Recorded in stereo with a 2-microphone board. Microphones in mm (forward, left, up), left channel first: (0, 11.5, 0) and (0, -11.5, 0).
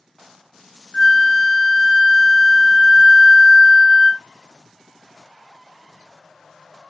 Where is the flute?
20° left (ahead or behind), 0.9 m.